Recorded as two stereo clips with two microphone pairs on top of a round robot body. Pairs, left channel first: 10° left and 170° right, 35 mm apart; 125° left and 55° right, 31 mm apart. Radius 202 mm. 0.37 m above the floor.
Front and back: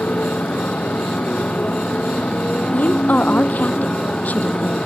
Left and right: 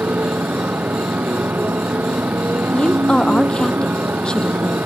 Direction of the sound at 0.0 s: 35° right.